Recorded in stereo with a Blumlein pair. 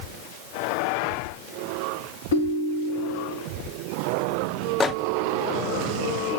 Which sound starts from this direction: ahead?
A microwave, at 4.8 s.